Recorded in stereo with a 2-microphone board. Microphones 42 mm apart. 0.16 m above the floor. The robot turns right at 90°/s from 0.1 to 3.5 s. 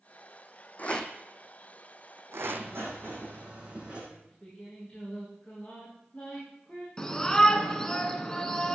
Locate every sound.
0.8 s a rattle: 40° left (ahead or behind), 1.3 m; by 2.7 s 50° right (ahead or behind), 1.3 m
2.4 s writing: 125° right, 8 m; by 4.0 s 25° right, 8 m
4.1 s singing: 25° left (ahead or behind), 8.5 m
7.0 s a shout: 15° left (ahead or behind), 2.0 m